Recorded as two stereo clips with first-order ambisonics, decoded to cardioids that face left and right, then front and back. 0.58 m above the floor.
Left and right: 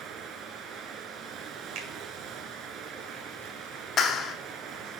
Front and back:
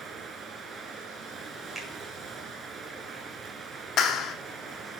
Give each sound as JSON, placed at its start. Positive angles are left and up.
{"t": 0.0, "sound": "running water", "azimuth_deg": -120, "distance_m": 0.7}
{"t": 1.8, "sound": "a finger snap", "azimuth_deg": -105, "distance_m": 1.9}
{"t": 4.0, "sound": "a clap", "azimuth_deg": 35, "distance_m": 0.8}